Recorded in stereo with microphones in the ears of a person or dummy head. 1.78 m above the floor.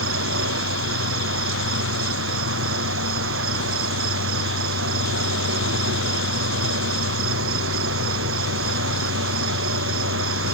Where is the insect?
70° right (ahead or behind).